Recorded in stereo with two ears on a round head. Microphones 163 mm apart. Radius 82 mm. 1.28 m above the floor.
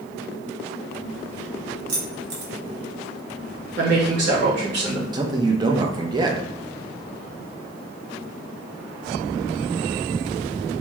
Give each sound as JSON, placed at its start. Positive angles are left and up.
{"t": 1.9, "sound": "keys jangling", "side_deg": -60, "distance_m": 1.1}
{"t": 3.8, "sound": "a woman speaking", "side_deg": -60, "distance_m": 1.6}
{"t": 5.1, "sound": "a man speaking", "side_deg": -25, "distance_m": 0.6}